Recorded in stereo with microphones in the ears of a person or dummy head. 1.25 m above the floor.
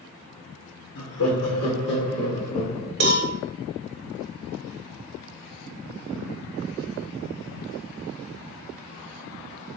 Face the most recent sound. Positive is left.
turn(degrees=-55)  # may be behind; listen again after turning